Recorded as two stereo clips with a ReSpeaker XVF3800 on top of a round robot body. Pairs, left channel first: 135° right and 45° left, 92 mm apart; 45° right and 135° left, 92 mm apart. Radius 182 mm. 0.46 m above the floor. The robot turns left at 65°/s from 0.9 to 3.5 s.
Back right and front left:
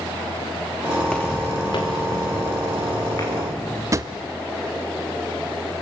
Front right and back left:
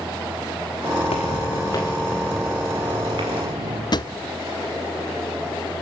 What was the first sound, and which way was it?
Footsteps, 45° right.